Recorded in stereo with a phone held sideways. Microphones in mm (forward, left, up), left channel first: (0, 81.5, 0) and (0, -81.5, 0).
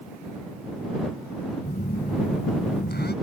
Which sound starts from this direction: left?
A phone buzzing, at 1.6 s.